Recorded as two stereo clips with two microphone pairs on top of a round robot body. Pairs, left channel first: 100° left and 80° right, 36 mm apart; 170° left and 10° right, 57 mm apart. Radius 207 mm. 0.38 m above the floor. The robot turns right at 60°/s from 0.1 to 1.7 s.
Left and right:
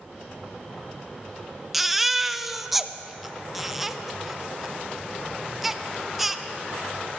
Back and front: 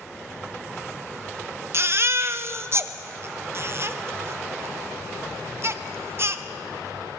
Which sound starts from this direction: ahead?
A baby crying, at 1.7 s.